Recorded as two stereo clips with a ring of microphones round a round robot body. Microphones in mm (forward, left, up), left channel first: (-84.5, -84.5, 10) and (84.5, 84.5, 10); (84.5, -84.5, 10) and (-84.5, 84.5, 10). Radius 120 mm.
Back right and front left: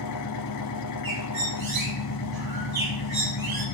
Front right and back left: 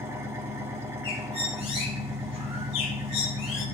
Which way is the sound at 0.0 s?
145° right.